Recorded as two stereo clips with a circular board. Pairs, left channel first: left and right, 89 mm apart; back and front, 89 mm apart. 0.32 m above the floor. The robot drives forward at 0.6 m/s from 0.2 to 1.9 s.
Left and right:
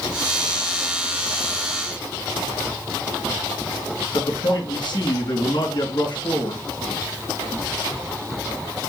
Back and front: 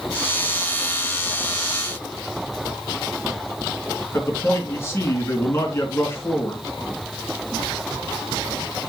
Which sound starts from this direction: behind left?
A man speaking, at 4.1 s.